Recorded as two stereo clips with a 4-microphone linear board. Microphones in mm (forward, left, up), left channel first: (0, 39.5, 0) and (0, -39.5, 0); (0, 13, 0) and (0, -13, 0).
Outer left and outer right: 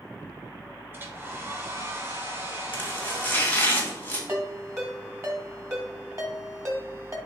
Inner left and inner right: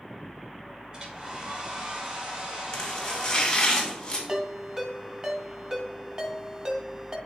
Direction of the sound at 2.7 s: 25° left (ahead or behind).